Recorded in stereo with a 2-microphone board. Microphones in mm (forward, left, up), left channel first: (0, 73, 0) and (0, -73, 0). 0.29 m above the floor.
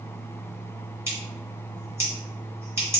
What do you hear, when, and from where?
1.1 s scissors: 20° right (ahead or behind), 1.1 m